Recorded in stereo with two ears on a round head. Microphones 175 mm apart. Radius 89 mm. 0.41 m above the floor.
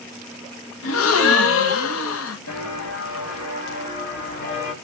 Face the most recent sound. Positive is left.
turn(degrees=40)  # may be behind; listen again after turning